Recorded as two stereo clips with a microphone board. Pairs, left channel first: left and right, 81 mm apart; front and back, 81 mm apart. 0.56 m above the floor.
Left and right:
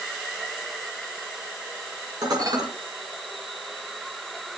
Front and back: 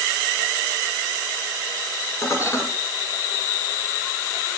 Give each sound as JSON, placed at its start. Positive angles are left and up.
{"t": 2.2, "sound": "dishes clattering", "azimuth_deg": -50, "distance_m": 5.5}